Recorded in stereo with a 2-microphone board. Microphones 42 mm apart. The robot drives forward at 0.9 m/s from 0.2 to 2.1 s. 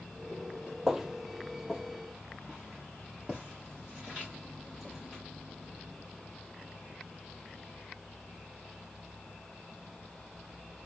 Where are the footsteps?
15° right (ahead or behind), 0.6 m; by 5.2 s 5° right (ahead or behind), 4.5 m.